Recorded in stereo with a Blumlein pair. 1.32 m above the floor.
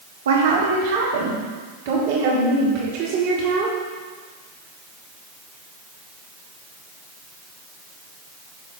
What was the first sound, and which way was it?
A woman speaking, 65° right.